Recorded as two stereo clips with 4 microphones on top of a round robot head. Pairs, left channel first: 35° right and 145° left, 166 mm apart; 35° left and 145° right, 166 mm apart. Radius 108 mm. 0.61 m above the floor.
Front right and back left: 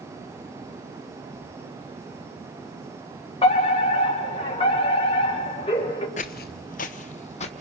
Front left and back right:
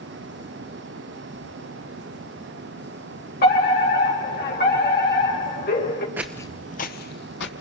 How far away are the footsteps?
About 0.7 m.